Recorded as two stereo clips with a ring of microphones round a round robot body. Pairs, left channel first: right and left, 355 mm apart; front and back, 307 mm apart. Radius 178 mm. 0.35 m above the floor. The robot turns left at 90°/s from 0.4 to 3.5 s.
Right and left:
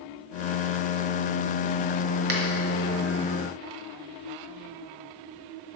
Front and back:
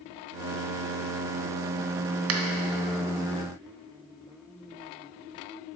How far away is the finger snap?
About 1.1 m.